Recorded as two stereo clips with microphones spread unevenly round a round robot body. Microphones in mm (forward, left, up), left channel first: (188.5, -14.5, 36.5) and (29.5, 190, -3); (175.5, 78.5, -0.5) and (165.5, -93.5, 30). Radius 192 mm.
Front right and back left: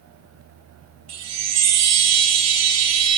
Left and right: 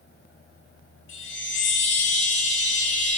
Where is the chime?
100° left, 0.7 m.